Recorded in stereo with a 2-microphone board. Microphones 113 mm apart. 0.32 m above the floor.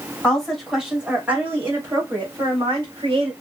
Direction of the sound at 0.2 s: 5° left (ahead or behind).